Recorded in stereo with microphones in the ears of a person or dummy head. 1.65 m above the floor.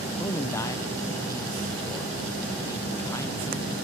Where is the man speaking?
20° left (ahead or behind), 0.9 m.